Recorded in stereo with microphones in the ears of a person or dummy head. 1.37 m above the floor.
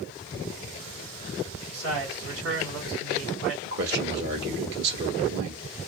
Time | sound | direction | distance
1.7 | a man speaking | 70° right (ahead or behind) | 1.9 m
3.6 | a man speaking | 55° right (ahead or behind) | 0.9 m